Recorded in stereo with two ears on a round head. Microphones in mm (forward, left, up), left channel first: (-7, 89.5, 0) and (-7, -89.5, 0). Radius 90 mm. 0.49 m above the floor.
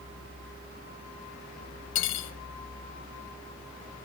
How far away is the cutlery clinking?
About 1.3 m.